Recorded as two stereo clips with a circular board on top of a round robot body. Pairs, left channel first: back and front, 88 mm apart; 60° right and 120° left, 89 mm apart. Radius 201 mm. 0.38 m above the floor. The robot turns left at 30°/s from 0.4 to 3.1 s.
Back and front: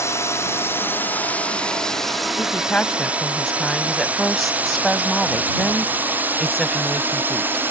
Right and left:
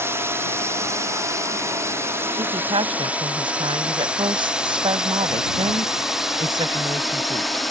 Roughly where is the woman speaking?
Behind left.